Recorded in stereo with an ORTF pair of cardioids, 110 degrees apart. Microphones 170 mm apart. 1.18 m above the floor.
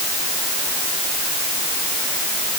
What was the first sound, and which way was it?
Only background noise.